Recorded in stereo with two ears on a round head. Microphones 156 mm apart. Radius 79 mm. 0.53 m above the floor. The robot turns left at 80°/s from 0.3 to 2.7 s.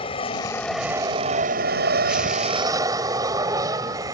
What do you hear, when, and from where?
0.0 s an aircraft: 35° left; by 4.1 s 155° right